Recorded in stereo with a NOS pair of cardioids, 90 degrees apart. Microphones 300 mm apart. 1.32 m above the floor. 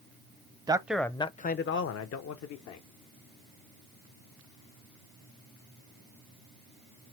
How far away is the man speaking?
About 0.7 m.